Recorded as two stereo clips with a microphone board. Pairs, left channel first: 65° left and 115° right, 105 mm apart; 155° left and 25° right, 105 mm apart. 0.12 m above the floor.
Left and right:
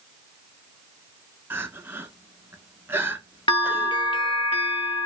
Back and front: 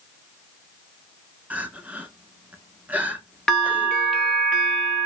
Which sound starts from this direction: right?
Crying, at 1.5 s.